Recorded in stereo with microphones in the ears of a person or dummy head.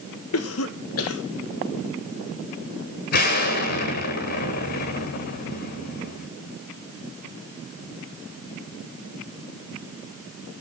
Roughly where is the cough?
Left.